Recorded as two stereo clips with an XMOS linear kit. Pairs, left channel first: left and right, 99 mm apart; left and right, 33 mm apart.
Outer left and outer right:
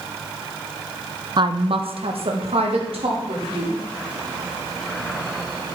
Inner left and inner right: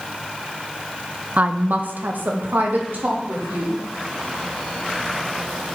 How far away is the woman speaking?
About 0.5 m.